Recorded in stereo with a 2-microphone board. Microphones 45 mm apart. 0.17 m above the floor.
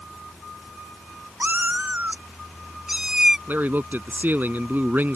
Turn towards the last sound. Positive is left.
turn(degrees=-45)  # may be behind; listen again after turning